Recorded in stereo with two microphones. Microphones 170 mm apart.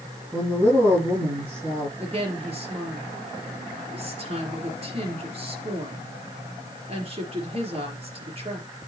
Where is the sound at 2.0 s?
35° right (ahead or behind), 4.5 m.